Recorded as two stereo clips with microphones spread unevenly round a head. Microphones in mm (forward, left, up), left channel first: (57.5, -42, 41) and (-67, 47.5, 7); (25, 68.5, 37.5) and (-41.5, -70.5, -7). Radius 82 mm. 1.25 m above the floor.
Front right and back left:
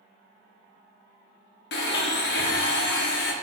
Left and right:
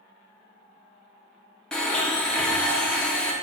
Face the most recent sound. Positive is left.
turn(degrees=-30)